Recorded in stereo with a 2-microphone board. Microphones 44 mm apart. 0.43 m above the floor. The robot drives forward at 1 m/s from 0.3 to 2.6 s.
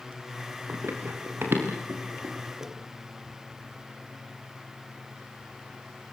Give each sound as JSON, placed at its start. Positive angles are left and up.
{"t": 0.7, "sound": "running footsteps", "side_deg": -70, "distance_m": 7.5}